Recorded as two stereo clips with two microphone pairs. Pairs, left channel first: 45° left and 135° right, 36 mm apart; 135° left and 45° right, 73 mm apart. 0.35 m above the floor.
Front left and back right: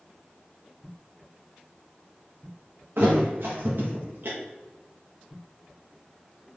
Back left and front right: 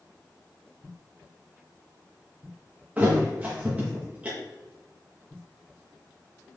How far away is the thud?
About 2.5 m.